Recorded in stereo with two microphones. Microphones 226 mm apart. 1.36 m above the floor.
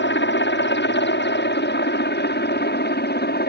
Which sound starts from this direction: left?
A helicopter, at 0.0 s.